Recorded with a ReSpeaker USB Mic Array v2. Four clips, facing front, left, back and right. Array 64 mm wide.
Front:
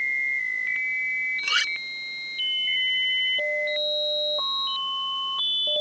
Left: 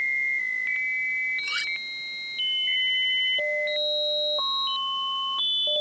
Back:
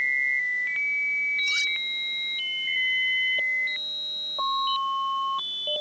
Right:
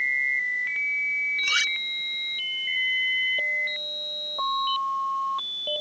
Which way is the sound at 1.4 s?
20° right.